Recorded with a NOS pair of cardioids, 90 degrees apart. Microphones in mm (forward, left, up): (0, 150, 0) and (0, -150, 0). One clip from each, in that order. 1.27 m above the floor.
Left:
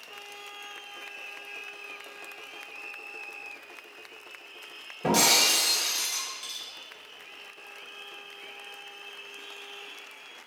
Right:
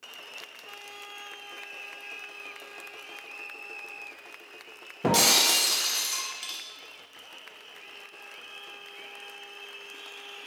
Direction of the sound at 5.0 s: 35° right.